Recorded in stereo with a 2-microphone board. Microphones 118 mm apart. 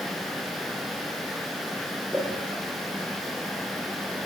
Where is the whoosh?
20° right (ahead or behind), 8.5 m.